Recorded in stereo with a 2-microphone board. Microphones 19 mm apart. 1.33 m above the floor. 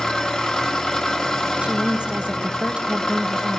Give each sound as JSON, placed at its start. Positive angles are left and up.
{"t": 0.0, "sound": "an engine running", "side_deg": 40, "distance_m": 1.5}
{"t": 1.6, "sound": "a woman speaking", "side_deg": -75, "distance_m": 0.7}